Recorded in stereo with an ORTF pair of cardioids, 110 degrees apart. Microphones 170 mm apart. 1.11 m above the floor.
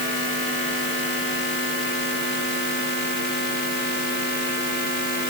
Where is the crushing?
No crushing in this recording.